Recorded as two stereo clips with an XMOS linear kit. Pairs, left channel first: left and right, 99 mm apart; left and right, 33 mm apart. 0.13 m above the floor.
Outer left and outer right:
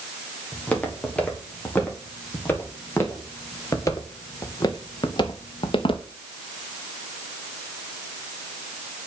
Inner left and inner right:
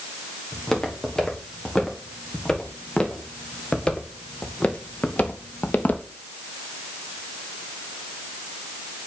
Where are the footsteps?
15° left (ahead or behind), 3.5 m; by 6.0 s 65° left (ahead or behind), 1.6 m.